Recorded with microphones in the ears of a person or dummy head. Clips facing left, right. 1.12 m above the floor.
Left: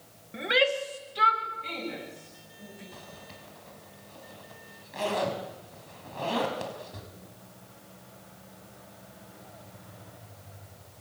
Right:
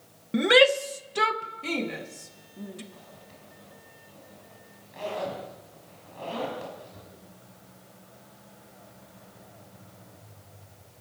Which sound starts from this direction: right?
A shout, at 0.3 s.